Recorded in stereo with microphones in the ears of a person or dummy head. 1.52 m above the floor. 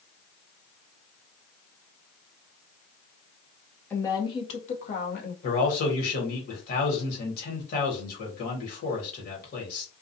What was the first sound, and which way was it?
A woman speaking, 15° left (ahead or behind).